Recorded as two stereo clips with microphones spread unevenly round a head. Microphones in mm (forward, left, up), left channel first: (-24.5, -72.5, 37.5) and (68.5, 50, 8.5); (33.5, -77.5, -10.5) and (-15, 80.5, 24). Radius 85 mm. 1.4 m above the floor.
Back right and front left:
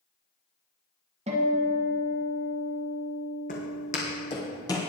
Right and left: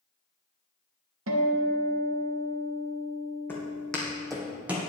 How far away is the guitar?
About 1.5 m.